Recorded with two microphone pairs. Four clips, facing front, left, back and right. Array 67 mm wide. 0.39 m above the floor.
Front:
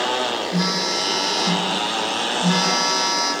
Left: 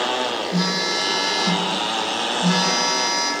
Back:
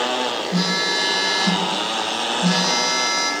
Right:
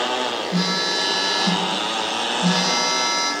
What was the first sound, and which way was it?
A phone buzzing, 115° right.